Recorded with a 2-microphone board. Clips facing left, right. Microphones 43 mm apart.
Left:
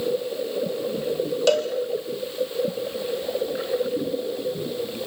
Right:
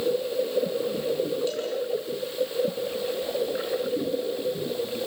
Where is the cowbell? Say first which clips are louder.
Left 10 dB; 75° left (ahead or behind), 2 m.